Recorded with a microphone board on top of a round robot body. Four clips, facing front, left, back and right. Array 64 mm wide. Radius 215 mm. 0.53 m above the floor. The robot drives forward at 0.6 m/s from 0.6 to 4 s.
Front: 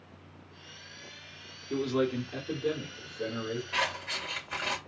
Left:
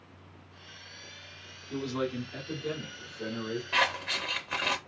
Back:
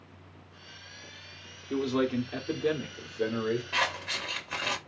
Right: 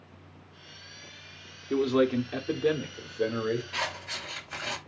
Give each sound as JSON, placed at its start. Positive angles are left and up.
{"t": 1.7, "sound": "a man speaking", "azimuth_deg": -100, "distance_m": 1.9}
{"t": 3.7, "sound": "scissors", "azimuth_deg": 105, "distance_m": 2.5}